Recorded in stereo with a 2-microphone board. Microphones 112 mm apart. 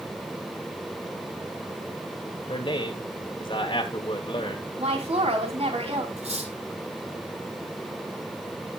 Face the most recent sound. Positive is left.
turn(degrees=-75)  # may be behind; listen again after turning